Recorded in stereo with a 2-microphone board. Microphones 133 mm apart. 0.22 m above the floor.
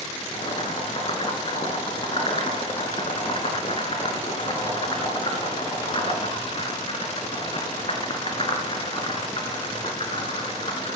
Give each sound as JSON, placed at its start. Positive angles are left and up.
{"t": 0.2, "sound": "boiling", "side_deg": 45, "distance_m": 2.0}